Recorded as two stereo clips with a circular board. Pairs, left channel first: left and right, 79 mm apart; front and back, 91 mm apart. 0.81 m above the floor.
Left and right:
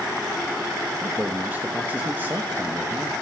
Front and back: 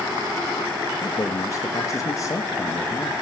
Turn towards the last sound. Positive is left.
turn(degrees=-35)